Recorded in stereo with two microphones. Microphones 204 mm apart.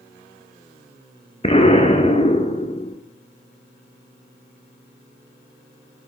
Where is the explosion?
30° left (ahead or behind), 1.2 m.